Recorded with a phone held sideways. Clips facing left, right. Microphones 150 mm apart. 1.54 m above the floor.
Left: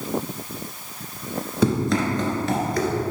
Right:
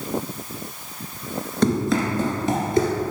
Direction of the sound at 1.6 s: 5° left (ahead or behind).